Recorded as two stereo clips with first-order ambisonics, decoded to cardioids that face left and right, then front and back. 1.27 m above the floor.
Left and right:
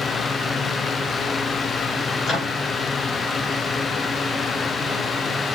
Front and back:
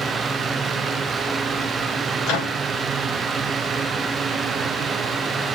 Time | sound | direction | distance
2.2 | a microwave | 20° left | 2.5 m